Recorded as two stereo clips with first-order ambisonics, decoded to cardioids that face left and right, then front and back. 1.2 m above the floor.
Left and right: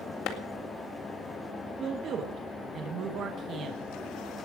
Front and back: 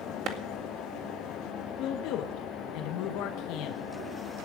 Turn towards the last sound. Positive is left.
turn(degrees=-30)